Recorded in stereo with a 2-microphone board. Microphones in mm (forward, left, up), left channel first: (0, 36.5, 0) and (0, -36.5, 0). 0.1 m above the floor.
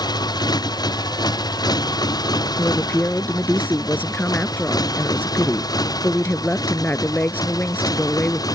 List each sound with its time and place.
0.0 s a motorcycle: 60° left (ahead or behind); by 8.6 s 55° left (ahead or behind)
2.6 s a woman speaking: 25° left (ahead or behind)